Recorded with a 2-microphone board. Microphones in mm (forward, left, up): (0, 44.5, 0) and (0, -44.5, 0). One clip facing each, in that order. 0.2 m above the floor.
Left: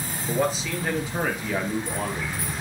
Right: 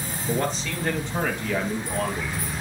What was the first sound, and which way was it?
A man speaking, 5° left (ahead or behind).